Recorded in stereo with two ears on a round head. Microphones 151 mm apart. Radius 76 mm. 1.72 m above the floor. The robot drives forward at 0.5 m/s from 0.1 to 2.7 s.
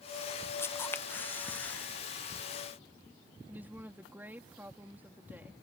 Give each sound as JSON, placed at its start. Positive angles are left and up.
{"t": 0.6, "sound": "a camera shutter", "side_deg": 15}
{"t": 3.5, "sound": "a woman speaking", "side_deg": -10}